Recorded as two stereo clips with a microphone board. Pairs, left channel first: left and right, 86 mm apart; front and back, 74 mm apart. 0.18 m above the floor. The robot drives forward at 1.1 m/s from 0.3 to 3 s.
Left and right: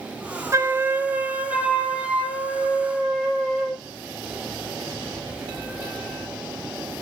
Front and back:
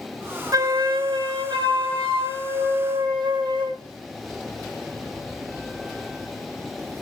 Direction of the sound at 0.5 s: 140° right.